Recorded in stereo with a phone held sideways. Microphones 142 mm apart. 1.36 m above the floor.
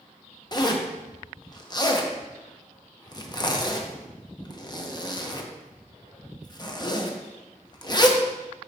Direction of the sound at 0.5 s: 30° left (ahead or behind).